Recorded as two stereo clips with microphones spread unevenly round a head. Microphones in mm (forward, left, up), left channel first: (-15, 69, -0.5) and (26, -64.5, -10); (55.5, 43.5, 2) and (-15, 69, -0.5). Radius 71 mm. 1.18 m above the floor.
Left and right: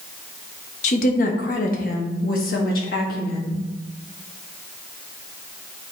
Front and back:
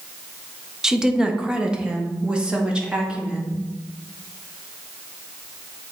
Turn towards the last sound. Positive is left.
turn(degrees=85)